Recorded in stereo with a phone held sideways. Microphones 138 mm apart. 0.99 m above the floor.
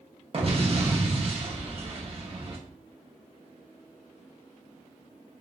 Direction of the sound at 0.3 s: 45° right (ahead or behind).